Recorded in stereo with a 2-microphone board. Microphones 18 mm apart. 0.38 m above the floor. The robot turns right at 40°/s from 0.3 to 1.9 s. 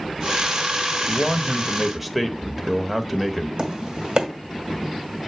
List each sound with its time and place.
1.1 s a man speaking: 165° left, 1.1 m; by 3.5 s 165° right, 1.1 m
3.6 s tapping: 55° right (ahead or behind), 1.7 m